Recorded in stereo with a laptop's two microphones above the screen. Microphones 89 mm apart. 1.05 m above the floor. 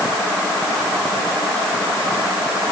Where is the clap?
I don't hear a clap.